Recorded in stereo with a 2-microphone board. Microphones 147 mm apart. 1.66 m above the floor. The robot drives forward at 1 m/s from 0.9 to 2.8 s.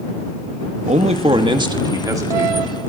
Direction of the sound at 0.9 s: 55° right (ahead or behind).